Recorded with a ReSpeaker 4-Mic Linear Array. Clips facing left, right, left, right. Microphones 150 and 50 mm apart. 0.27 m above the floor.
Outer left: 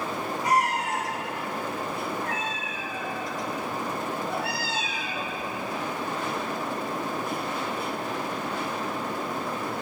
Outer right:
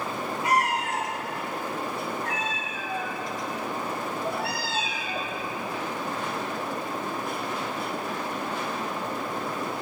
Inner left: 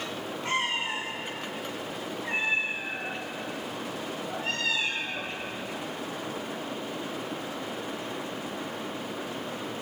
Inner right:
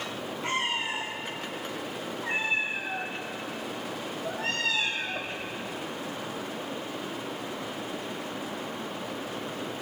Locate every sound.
0.4 s a cat meowing: 65° right (ahead or behind), 5 m; by 5.4 s 50° right (ahead or behind), 3.5 m